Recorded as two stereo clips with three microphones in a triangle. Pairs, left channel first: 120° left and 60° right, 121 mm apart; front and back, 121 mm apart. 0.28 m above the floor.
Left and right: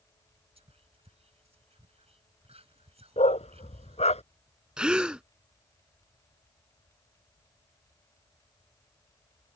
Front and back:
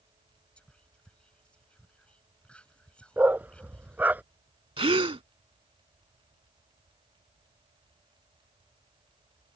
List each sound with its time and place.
0.6 s whispering: 80° right
3.2 s a dog barking: 105° left
4.8 s a gasp: 140° right